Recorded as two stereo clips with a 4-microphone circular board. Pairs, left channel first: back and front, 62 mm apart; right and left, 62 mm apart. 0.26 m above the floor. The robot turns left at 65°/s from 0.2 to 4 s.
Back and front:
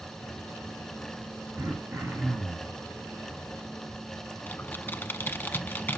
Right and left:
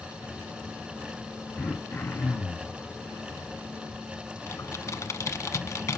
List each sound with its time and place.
1.6 s throat clearing: 5° right, 1.7 m; by 2.8 s 85° right, 1.7 m
4.5 s typing on a keyboard: 125° right, 0.7 m